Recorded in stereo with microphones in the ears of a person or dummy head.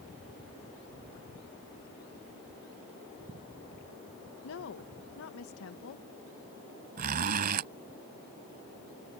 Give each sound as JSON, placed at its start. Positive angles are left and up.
{"t": 4.4, "sound": "a woman speaking", "side_deg": 75}
{"t": 7.0, "sound": "a zipper", "side_deg": -40}